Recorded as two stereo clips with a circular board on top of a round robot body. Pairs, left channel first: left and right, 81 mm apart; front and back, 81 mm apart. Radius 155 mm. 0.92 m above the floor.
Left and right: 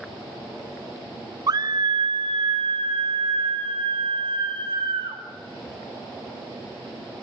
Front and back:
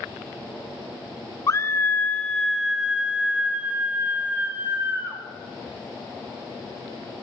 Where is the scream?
50° right, 1.2 m; by 5.2 s 115° right, 3.5 m.